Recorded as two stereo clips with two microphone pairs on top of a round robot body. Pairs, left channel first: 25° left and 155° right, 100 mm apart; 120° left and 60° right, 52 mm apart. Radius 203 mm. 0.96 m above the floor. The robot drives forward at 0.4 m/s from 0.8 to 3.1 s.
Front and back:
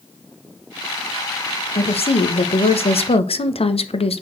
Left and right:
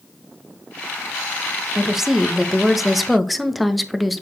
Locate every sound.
1.8 s a woman speaking: 20° left, 1.9 m; by 4.2 s 30° left, 1.4 m